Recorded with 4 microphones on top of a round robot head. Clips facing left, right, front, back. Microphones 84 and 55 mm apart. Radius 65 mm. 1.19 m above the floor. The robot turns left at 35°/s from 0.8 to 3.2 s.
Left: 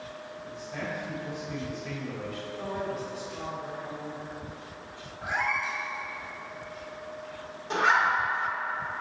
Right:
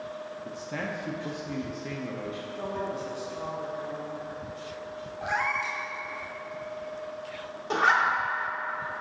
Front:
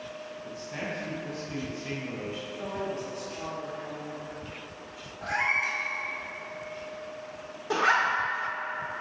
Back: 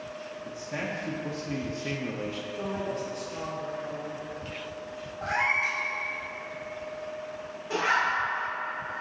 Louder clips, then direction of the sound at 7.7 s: Even, front 2 dB; 50° right.